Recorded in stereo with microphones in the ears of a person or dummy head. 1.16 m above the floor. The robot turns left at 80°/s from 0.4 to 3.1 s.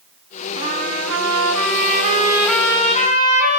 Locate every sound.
0.6 s a trumpet: 20° right, 5.5 m; by 3.6 s 135° left, 5.5 m